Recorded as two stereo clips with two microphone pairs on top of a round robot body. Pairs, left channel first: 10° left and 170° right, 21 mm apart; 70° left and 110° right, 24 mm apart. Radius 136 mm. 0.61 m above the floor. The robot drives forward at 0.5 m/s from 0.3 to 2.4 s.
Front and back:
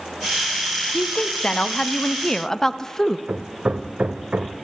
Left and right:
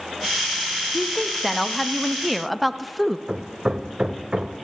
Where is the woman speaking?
5° left, 1.6 m; by 3.2 s 10° left, 1.2 m.